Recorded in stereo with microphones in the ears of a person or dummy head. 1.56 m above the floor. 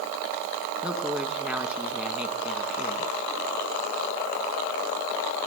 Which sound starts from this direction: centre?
A woman speaking, at 0.8 s.